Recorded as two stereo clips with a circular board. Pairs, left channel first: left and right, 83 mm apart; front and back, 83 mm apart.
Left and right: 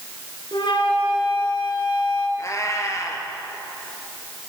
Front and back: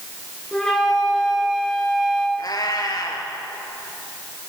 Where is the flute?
85° left, 7.5 m.